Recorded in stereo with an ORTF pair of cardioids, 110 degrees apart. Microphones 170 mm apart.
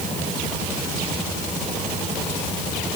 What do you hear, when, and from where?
Only background noise.